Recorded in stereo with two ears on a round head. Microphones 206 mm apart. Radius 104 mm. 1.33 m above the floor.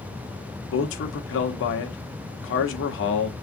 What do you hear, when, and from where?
0.7 s a man speaking: 60° left (ahead or behind), 1.2 m